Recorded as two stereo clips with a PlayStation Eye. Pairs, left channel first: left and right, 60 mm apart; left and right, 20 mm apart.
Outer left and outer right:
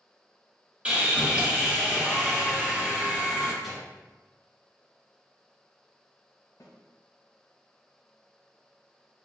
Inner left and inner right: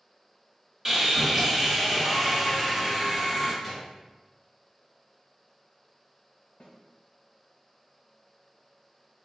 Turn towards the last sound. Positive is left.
turn(degrees=70)  # may be behind; listen again after turning